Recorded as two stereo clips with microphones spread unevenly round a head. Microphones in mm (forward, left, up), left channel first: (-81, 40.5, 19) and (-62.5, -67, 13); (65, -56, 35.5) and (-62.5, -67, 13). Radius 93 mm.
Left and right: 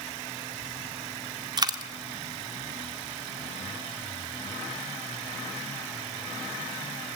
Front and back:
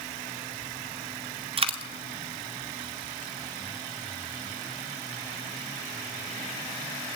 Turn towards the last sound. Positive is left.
turn(degrees=-130)